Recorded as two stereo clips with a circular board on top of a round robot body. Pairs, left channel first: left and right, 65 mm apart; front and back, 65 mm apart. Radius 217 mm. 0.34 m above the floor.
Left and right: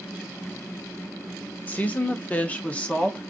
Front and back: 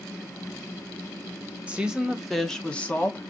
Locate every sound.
1.7 s a woman speaking: 130° left, 1.1 m; by 3.3 s 25° left, 1.1 m